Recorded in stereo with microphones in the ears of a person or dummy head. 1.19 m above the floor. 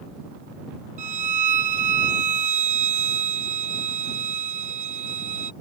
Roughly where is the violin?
Right.